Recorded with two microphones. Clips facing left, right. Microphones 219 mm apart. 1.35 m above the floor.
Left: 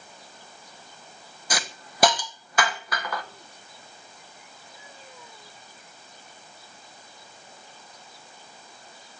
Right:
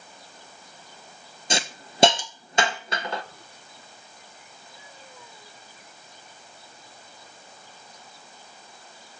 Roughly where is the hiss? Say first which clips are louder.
Right 4 dB; right.